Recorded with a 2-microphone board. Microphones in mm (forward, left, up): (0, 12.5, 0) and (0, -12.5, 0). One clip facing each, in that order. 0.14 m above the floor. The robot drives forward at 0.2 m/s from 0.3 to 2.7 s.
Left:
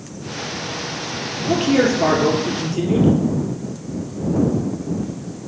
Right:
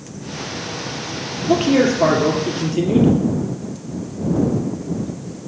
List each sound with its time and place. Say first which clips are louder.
1.5 s a man speaking: right 1 dB; 10° right (ahead or behind), 2.5 m; by 3.1 s 15° right (ahead or behind), 2.5 m